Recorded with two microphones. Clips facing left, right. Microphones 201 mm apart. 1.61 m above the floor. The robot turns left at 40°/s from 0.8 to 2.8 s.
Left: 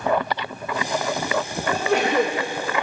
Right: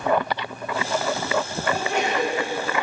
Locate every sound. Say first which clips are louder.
1.7 s a sneeze: left 4 dB; 85° left, 3 m; by 2.4 s 55° left (ahead or behind), 3 m